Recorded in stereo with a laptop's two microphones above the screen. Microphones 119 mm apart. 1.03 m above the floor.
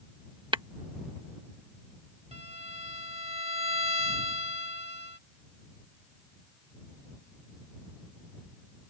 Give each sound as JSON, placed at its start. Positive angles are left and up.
{"t": 0.5, "sound": "tapping", "side_deg": -45}
{"t": 2.3, "sound": "a violin", "side_deg": -60}